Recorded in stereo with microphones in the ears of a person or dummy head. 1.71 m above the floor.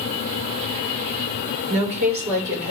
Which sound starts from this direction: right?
A woman speaking, at 1.7 s.